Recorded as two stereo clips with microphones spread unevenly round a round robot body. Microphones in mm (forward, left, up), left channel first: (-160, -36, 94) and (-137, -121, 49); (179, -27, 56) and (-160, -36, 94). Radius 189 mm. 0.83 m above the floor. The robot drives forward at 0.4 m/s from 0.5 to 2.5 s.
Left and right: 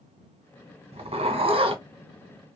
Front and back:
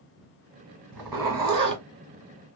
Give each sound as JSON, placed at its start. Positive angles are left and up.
{"t": 0.9, "sound": "a zipper", "azimuth_deg": -95, "distance_m": 1.6}